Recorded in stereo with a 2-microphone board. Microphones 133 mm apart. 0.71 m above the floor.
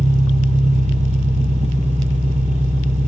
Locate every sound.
0.0 s an engine running: 65° right (ahead or behind), 3 m